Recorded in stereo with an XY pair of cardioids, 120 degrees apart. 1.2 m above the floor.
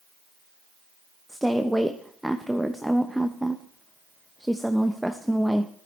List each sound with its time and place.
1.3 s a woman speaking: straight ahead, 0.8 m